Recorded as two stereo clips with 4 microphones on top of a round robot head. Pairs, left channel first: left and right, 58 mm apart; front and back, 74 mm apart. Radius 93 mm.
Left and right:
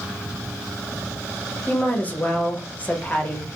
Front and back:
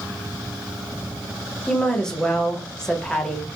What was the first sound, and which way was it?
A woman speaking, 70° left.